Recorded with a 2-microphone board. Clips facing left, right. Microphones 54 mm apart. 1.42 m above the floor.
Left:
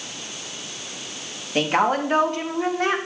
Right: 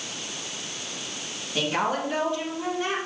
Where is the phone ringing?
I don't hear a phone ringing.